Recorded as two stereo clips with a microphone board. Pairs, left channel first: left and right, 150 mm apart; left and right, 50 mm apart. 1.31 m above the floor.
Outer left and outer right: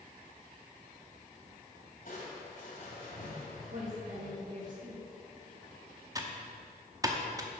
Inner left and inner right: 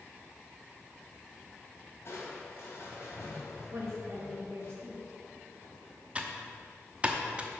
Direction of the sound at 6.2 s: 20° right (ahead or behind).